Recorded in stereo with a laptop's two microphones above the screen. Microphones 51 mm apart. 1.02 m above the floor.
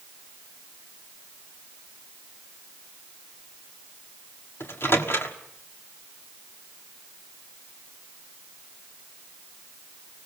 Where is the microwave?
50° left (ahead or behind), 1.6 m.